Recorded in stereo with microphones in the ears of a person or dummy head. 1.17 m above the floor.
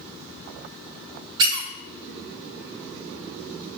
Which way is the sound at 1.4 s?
30° right (ahead or behind).